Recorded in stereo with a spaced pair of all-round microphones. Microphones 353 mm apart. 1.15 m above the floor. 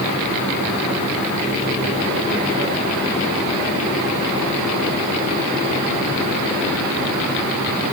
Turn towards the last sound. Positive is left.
No sound to turn to.